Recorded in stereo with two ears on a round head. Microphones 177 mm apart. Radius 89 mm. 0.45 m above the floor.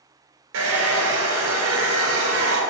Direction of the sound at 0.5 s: 70° right (ahead or behind).